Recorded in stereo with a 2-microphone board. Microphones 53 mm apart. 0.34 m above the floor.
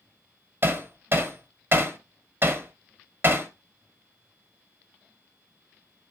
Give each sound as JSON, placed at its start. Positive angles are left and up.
{"t": 0.6, "sound": "hammering", "side_deg": -45, "distance_m": 1.5}